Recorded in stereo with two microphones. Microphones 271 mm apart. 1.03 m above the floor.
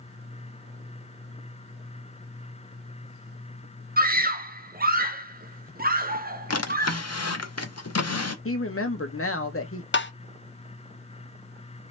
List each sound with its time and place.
4.0 s a scream: 35° right (ahead or behind), 0.5 m
6.5 s a drawer: 65° left (ahead or behind), 0.7 m
8.4 s a woman speaking: 55° left (ahead or behind), 1.1 m
9.9 s tapping: 45° left (ahead or behind), 0.6 m